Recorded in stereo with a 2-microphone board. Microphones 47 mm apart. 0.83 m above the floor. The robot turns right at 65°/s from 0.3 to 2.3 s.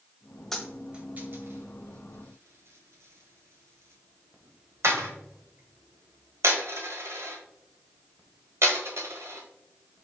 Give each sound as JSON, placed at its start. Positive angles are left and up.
{"t": 0.5, "sound": "a dropped coin", "side_deg": 5, "distance_m": 1.4}